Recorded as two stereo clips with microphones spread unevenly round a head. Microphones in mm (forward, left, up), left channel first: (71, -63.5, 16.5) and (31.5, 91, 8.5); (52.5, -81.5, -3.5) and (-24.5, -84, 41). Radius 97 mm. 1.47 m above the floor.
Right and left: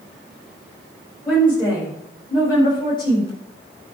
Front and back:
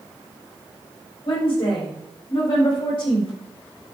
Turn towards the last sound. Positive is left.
turn(degrees=-15)